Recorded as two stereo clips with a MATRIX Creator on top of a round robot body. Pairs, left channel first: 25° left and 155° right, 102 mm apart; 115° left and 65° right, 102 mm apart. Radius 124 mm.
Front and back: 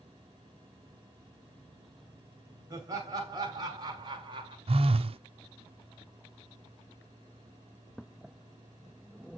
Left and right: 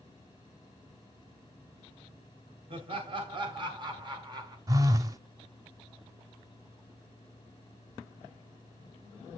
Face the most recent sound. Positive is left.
turn(degrees=-125)